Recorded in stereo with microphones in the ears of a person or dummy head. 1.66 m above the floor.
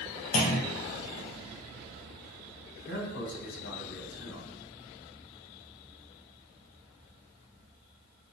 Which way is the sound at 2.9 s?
55° left (ahead or behind).